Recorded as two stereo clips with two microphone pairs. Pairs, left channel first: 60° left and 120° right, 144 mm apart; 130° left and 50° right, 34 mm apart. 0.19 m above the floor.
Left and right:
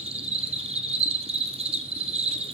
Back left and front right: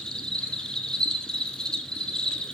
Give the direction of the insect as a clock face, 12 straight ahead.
5 o'clock.